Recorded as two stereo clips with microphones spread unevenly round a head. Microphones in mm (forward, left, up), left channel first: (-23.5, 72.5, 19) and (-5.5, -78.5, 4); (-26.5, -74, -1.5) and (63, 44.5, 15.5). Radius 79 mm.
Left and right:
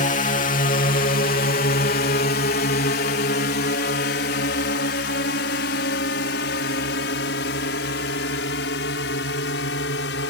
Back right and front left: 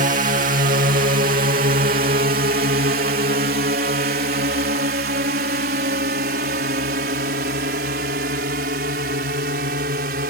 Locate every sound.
0.0 s a drone: 75° left; by 10.3 s 85° left